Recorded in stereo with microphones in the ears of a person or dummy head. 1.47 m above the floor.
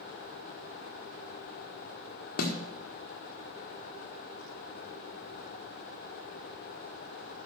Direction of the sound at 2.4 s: 55° left (ahead or behind).